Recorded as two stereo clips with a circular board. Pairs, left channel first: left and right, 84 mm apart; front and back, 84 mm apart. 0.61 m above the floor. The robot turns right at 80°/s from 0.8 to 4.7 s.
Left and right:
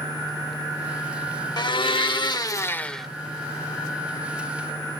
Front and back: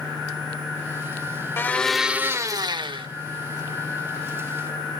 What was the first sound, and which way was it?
A blender, 60° left.